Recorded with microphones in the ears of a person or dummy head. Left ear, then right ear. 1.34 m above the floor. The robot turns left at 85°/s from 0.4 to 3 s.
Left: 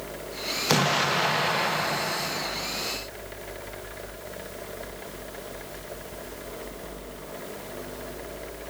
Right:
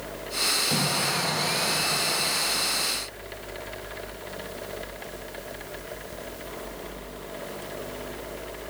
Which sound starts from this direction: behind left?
An explosion, at 0.7 s.